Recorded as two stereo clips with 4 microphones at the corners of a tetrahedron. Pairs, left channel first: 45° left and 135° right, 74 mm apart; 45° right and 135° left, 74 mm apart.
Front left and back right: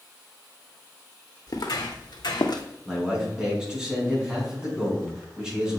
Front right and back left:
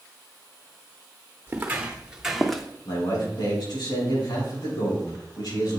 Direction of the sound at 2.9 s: 55° right.